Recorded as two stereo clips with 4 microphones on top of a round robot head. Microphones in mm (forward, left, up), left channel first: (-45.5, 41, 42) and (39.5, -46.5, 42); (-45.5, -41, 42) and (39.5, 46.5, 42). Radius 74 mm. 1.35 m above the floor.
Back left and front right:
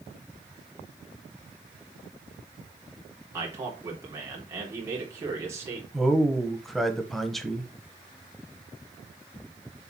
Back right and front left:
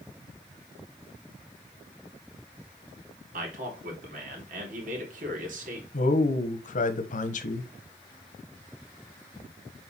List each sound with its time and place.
3.3 s a man speaking: 25° left, 3.5 m
5.9 s a man speaking: 140° right, 1.3 m